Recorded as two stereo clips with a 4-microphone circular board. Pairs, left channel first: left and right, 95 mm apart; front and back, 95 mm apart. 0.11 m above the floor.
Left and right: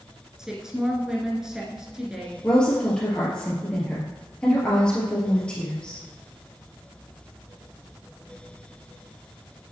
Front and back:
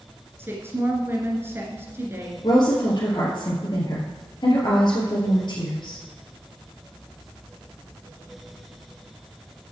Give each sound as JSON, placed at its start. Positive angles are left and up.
{"t": 0.4, "sound": "a woman speaking", "azimuth_deg": -165, "distance_m": 1.7}
{"t": 2.4, "sound": "a woman speaking", "azimuth_deg": 15, "distance_m": 2.0}